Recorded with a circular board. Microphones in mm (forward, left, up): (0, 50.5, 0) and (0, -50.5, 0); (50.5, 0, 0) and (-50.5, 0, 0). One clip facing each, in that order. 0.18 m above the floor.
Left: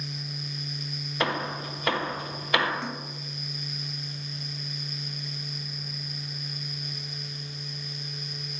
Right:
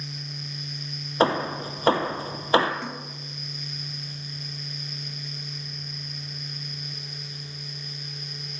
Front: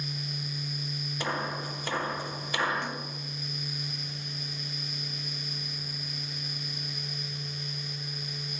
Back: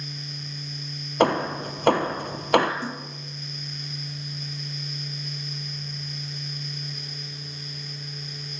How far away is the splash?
About 1.2 m.